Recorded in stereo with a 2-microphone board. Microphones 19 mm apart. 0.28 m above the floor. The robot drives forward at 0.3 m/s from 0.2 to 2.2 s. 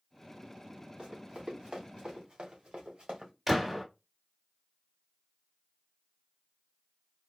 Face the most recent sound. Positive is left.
turn(degrees=-15)  # may be behind; listen again after turning